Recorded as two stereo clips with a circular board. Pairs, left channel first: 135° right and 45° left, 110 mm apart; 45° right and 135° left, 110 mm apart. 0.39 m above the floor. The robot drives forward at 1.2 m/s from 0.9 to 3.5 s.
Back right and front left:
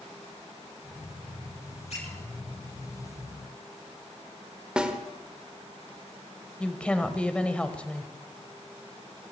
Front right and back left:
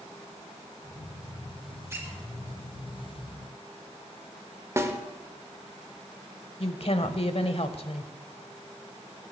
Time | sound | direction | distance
1.9 | a squeak | 160° right | 6 m
4.8 | a snare drum | 115° left | 1.3 m
6.6 | a woman speaking | 55° right | 1.3 m